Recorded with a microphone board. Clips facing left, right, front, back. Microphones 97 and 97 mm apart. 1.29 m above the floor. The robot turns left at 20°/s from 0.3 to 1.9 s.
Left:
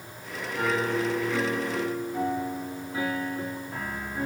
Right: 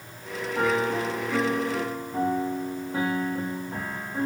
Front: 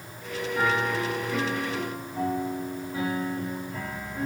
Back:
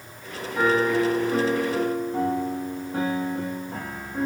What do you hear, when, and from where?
0.6 s a piano: 110° right, 2.5 m; by 4.3 s 135° right, 2.5 m